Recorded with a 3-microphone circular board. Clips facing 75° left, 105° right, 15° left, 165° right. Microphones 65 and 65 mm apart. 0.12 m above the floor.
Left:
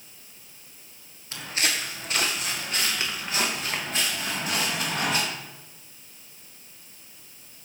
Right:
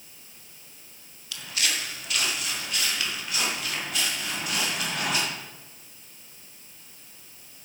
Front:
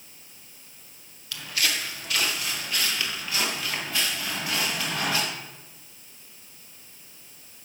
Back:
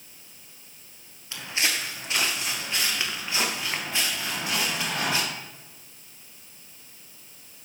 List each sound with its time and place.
1.3 s footsteps: 130° left, 1.5 m